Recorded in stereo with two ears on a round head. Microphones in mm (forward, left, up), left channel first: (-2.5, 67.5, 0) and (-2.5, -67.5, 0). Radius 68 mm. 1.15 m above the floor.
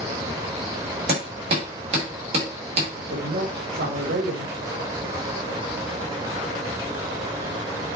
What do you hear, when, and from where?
1.1 s hammering: 45° right (ahead or behind), 3.5 m
3.0 s a woman speaking: 75° right (ahead or behind), 2.5 m